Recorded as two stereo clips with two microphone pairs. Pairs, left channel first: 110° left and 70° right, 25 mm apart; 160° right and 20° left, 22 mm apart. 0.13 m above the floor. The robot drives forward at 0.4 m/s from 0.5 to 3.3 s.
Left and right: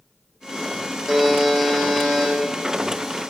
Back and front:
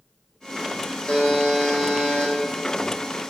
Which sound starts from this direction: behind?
A buzzer, at 1.1 s.